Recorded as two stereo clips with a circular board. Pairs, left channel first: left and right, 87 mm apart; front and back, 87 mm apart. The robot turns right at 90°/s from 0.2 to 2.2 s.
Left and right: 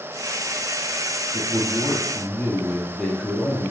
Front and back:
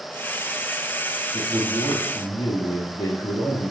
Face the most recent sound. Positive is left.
turn(degrees=5)